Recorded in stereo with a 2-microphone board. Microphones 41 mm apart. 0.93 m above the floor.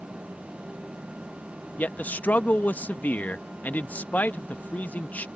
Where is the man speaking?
45° left (ahead or behind).